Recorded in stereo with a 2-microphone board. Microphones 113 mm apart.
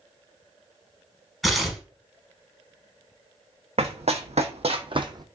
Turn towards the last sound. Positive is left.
turn(degrees=-35)  # may be behind; listen again after turning